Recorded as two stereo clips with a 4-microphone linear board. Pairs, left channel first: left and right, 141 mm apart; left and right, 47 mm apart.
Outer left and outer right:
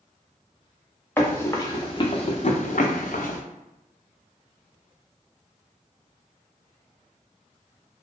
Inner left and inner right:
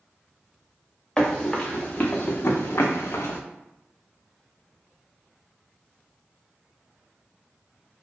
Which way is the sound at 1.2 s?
15° left (ahead or behind).